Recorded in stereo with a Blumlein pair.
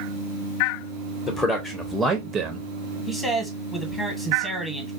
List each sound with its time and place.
1.3 s a man speaking: 15° left, 0.9 m; by 2.7 s 40° right, 0.6 m
3.1 s a man speaking: 15° left, 1.1 m